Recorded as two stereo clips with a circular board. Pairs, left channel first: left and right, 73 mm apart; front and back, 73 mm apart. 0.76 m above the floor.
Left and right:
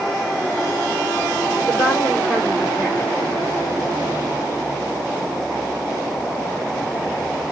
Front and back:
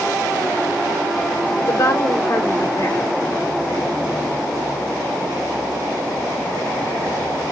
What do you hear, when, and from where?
1.6 s a woman speaking: 25° left, 2.5 m